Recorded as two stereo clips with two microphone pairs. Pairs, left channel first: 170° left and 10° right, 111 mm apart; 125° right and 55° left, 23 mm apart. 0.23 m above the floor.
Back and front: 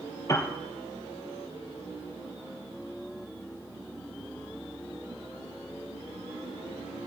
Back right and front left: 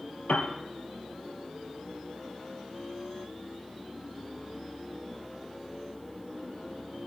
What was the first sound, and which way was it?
A piano, 135° right.